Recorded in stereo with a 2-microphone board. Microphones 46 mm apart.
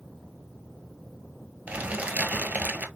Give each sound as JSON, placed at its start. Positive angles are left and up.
{"t": 1.7, "sound": "crumpling", "side_deg": -30, "distance_m": 1.1}